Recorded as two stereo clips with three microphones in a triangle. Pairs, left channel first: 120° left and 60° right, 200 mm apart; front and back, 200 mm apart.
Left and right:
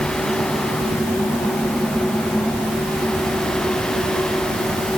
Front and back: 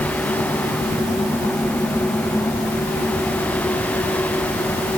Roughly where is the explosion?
I don't hear an explosion.